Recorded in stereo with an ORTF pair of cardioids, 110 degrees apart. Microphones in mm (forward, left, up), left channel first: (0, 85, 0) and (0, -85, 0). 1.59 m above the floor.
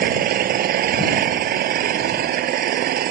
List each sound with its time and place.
0.0 s an engine running: 65° right